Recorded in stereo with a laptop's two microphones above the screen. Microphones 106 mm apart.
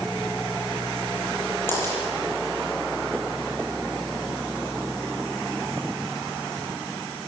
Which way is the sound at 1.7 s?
20° left (ahead or behind).